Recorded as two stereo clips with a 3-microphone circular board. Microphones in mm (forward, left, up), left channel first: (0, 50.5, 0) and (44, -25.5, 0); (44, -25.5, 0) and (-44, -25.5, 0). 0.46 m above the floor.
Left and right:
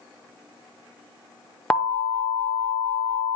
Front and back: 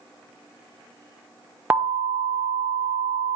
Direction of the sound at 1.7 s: 170° left.